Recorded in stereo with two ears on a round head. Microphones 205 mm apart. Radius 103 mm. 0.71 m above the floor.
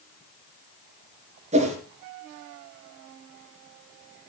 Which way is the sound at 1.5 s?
30° right (ahead or behind).